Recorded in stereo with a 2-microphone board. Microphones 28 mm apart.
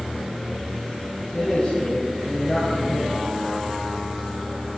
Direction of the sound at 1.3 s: 25° left (ahead or behind).